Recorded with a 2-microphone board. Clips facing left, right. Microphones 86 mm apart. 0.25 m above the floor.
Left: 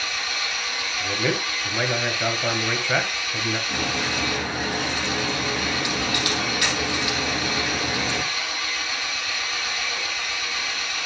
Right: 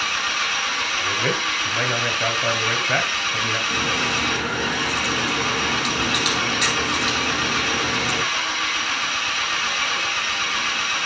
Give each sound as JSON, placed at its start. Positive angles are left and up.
{"t": 0.0, "sound": "an engine running", "side_deg": -65, "distance_m": 1.1}
{"t": 1.0, "sound": "a man speaking", "side_deg": -5, "distance_m": 1.2}
{"t": 3.7, "sound": "a crack", "side_deg": -25, "distance_m": 5.5}